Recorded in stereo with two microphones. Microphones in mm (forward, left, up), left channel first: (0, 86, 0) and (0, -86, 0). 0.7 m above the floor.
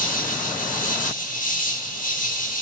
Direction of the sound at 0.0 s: 50° left (ahead or behind).